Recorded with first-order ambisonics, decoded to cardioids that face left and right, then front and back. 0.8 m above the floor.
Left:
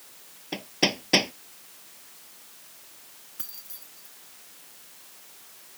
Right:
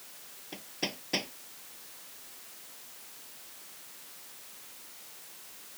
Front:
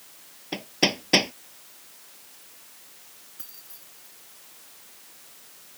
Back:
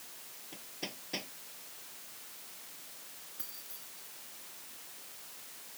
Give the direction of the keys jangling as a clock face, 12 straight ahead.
9 o'clock.